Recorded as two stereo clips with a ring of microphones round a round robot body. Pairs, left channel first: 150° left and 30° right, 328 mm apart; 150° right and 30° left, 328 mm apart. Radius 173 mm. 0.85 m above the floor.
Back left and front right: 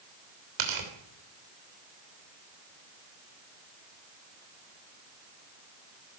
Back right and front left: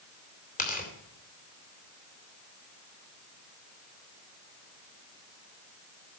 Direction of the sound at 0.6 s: 80° right.